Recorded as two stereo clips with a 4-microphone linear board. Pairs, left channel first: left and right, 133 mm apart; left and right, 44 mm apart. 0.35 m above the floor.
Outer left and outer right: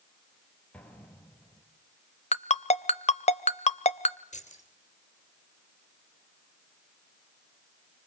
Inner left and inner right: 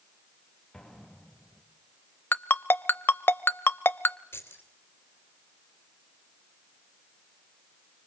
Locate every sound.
0.7 s an explosion: 10° left (ahead or behind), 4 m
2.3 s a ringtone: 55° left (ahead or behind), 0.6 m
4.3 s keys jangling: 60° left (ahead or behind), 3.5 m